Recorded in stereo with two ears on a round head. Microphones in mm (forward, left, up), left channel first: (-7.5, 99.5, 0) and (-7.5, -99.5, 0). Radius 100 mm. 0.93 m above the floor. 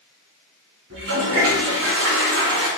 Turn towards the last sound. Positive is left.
turn(degrees=-60)  # may be behind; listen again after turning